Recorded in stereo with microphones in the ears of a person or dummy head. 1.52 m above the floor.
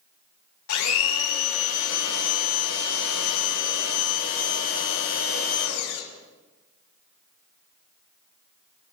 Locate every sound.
0.7 s a blender: 80° left, 3 m